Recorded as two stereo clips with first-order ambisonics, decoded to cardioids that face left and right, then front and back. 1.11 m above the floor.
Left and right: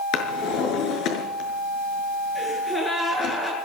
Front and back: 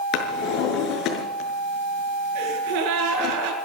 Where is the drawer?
45° left, 5.5 m.